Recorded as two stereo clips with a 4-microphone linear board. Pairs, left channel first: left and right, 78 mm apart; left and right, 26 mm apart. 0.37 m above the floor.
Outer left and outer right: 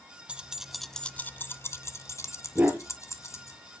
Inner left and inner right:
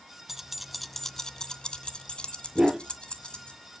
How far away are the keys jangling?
About 0.8 m.